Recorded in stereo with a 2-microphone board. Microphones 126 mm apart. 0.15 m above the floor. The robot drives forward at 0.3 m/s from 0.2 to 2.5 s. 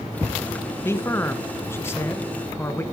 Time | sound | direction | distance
0.8 | a man speaking | 20° left (ahead or behind) | 1.1 m